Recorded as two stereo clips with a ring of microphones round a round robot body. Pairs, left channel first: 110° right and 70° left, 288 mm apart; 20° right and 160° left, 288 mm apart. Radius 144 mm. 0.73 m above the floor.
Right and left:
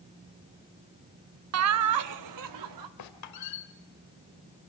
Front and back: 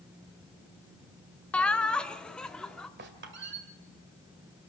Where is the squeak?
145° right, 1.7 m.